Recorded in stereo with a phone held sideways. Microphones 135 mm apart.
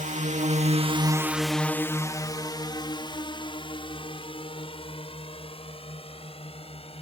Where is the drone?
65° right (ahead or behind); by 7.0 s 45° left (ahead or behind).